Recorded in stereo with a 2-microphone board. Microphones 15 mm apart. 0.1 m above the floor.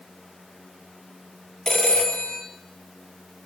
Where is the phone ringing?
60° left (ahead or behind), 1.7 m.